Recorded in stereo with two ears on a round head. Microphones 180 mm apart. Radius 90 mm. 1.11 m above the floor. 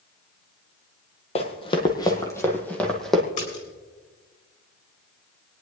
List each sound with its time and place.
1.4 s running footsteps: 30° left (ahead or behind), 1.7 m; by 3.2 s centre (ahead or behind), 2.0 m
3.4 s a splash: 35° left (ahead or behind), 4 m